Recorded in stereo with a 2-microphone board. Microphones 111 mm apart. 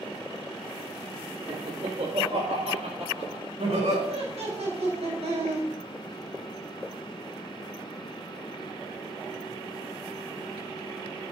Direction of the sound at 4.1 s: 75° right (ahead or behind).